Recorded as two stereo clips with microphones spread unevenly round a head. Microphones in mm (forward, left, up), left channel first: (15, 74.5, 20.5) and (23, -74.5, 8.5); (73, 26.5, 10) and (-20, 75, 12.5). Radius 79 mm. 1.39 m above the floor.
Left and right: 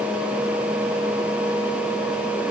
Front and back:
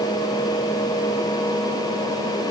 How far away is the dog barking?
I don't hear a dog barking.